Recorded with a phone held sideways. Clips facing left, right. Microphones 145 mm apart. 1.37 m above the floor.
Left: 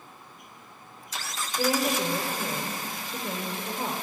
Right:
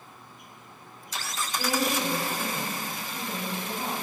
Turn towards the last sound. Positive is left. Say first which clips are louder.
# left 2 dB
turn(degrees=35)  # may be behind; listen again after turning